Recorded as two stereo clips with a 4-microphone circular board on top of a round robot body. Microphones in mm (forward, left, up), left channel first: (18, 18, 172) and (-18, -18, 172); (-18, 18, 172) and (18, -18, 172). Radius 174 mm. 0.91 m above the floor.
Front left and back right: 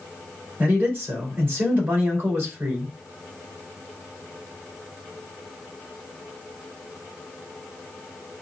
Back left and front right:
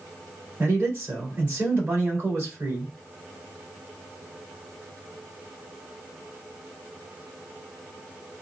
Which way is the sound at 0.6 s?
90° right.